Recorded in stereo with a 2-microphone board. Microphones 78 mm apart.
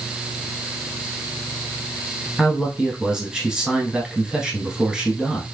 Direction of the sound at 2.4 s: 10° right (ahead or behind).